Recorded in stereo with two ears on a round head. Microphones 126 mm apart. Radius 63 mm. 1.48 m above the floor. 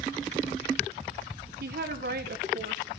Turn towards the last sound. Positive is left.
turn(degrees=-70)  # may be behind; listen again after turning